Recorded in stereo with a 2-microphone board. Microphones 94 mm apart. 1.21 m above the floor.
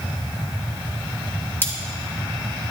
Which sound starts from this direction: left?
Cutlery clinking, at 1.6 s.